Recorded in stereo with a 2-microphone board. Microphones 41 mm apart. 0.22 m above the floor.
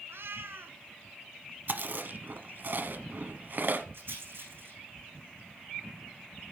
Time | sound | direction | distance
0.1 | a cat meowing | 70° right (ahead or behind) | 0.9 m
1.7 | chewing | 50° right (ahead or behind) | 1.0 m
3.9 | a rattle | 60° right (ahead or behind) | 9.5 m